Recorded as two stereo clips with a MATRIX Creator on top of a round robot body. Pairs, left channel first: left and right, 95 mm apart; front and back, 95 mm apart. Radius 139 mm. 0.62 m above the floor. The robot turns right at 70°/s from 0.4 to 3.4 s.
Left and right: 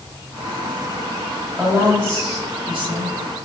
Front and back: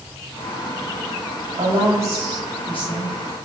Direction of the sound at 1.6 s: 155° right.